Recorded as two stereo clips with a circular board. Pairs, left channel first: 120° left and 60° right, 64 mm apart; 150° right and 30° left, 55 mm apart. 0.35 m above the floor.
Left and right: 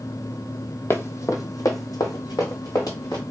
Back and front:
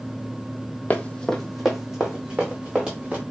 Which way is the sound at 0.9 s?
160° left.